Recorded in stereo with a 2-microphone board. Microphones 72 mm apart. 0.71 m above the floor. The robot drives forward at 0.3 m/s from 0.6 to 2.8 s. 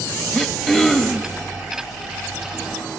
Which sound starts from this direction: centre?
Throat clearing, at 0.3 s.